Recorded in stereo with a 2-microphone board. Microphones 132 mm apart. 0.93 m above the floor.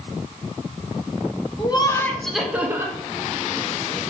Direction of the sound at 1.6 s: 35° left (ahead or behind).